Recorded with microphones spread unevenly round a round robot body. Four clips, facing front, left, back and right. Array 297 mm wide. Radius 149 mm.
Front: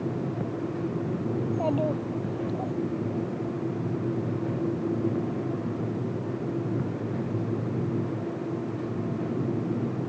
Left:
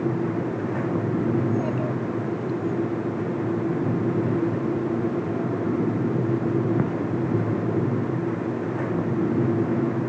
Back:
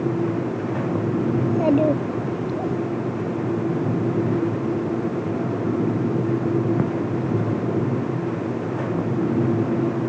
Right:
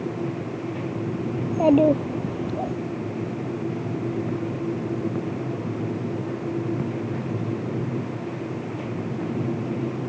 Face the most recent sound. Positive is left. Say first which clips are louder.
# right 6 dB, back 8 dB
turn(degrees=-125)